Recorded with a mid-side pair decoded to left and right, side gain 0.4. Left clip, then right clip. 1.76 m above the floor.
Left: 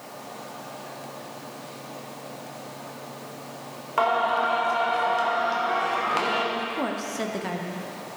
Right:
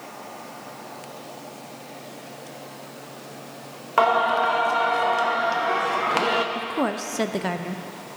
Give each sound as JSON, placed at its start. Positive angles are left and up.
{"t": 4.0, "sound": "singing", "azimuth_deg": -40, "distance_m": 0.7}
{"t": 6.5, "sound": "a woman speaking", "azimuth_deg": -45, "distance_m": 0.5}